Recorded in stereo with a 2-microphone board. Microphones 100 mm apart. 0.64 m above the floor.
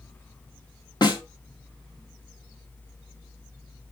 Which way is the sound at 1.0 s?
45° left (ahead or behind).